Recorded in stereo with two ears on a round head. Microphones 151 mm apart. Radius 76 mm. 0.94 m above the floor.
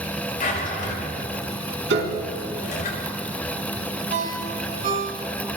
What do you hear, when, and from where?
0.4 s a drawer: 50° left (ahead or behind), 7 m
1.9 s a piano: 75° right (ahead or behind), 3.5 m
4.1 s a ringtone: 50° right (ahead or behind), 5 m